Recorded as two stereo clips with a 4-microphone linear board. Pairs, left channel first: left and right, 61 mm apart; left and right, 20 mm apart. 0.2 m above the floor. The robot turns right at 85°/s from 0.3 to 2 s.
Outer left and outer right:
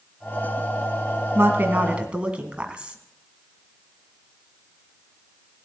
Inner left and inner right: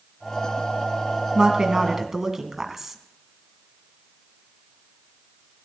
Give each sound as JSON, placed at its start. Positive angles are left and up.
{"t": 1.4, "sound": "a woman speaking", "azimuth_deg": -85, "distance_m": 1.7}